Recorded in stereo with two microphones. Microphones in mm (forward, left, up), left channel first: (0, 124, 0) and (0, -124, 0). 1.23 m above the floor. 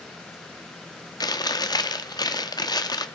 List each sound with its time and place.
1.2 s chewing: 15° left (ahead or behind), 0.8 m